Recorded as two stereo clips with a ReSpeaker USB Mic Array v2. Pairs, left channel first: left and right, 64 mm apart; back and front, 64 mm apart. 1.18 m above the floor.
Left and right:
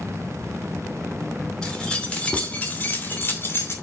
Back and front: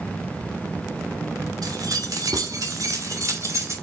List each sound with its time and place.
1.6 s keys jangling: 10° left, 3 m; by 3.7 s 40° left, 3 m